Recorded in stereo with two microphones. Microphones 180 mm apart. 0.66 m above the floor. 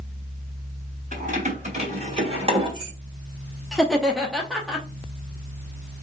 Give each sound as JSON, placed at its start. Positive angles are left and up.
{"t": 1.1, "sound": "keys jangling", "side_deg": -45, "distance_m": 2.5}
{"t": 3.7, "sound": "laughter", "side_deg": 0, "distance_m": 0.8}